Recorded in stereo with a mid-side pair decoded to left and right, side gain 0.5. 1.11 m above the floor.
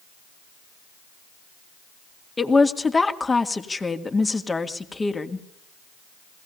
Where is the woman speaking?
20° left, 2 m.